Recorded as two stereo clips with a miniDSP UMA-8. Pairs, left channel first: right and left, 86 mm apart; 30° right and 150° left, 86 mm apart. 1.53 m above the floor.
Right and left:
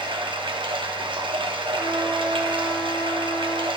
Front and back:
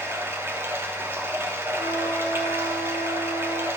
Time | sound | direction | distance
0.0 | running water | 85° left | 0.7 m
1.8 | a trumpet | 160° right | 3 m